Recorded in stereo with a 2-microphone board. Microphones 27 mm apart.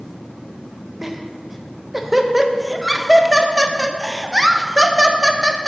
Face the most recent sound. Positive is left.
turn(degrees=-10)  # may be behind; listen again after turning